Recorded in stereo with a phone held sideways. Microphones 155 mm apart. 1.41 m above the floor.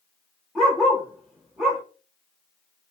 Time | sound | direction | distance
0.6 | a dog barking | centre (ahead or behind) | 1.2 m